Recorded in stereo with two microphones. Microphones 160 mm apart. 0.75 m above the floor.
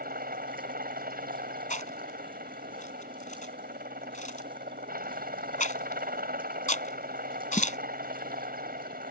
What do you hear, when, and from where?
0.0 s a helicopter: 70° right (ahead or behind)
1.7 s chewing: 55° left (ahead or behind)